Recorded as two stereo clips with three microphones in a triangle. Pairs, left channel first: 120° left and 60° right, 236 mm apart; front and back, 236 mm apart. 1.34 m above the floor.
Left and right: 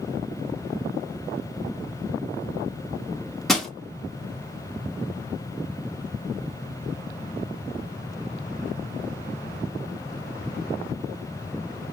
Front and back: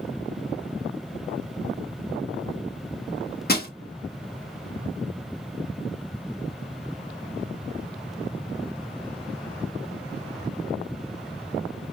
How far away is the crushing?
About 1.0 m.